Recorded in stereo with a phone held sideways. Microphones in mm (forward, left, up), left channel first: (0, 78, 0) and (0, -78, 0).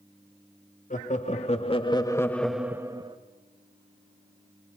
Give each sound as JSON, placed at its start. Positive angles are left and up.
{"t": 0.9, "sound": "laughter", "side_deg": 55, "distance_m": 2.0}